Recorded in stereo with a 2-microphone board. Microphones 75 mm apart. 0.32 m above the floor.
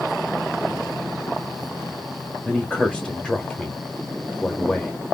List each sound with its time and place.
2.5 s a man speaking: 10° left (ahead or behind), 0.9 m